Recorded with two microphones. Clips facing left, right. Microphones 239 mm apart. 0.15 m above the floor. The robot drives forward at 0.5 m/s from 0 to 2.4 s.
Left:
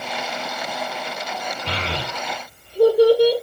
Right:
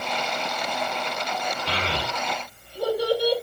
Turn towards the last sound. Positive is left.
turn(degrees=70)  # may be behind; listen again after turning